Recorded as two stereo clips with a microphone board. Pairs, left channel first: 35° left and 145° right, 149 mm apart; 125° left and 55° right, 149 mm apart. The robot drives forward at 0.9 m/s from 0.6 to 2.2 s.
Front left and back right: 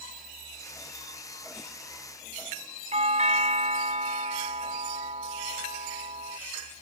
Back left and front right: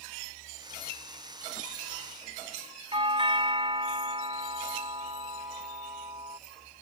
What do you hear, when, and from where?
2.9 s a doorbell: 110° right